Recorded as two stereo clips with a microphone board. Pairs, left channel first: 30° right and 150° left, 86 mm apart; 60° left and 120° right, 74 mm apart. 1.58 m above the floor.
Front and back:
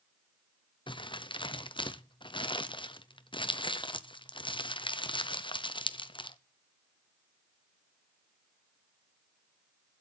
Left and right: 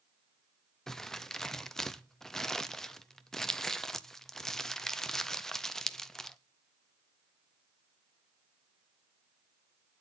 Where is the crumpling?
20° right, 0.7 m.